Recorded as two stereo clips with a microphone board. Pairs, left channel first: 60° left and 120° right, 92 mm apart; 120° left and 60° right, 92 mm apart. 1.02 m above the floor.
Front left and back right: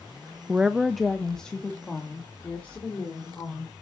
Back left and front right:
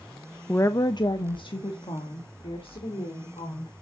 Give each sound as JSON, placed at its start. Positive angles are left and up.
{"t": 0.5, "sound": "a woman speaking", "azimuth_deg": 180, "distance_m": 0.5}